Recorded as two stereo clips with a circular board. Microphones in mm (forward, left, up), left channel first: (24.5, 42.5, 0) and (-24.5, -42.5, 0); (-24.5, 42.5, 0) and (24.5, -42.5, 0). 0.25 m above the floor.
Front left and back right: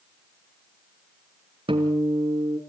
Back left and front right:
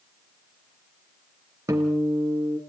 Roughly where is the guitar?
Behind right.